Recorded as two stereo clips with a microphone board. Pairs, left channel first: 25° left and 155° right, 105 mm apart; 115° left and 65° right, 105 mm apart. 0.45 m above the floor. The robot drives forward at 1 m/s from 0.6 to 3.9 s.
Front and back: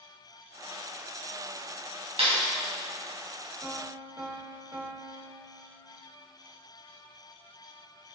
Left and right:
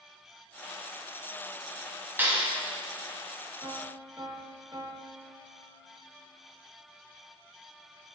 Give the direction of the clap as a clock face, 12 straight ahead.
5 o'clock.